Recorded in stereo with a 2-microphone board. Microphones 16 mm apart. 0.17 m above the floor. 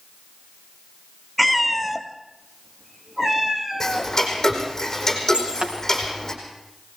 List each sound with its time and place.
1.4 s a cat meowing: 5° right (ahead or behind), 1.2 m; by 4.1 s 30° right (ahead or behind), 3 m
3.8 s ticking: 25° left (ahead or behind), 4.5 m
5.3 s breaking glass: 80° right, 4.5 m